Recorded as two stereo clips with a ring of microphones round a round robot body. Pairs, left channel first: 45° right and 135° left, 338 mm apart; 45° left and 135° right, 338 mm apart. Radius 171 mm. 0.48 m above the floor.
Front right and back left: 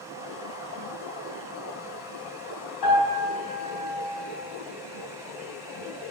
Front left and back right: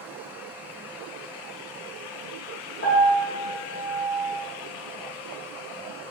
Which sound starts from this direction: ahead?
A piano, at 2.8 s.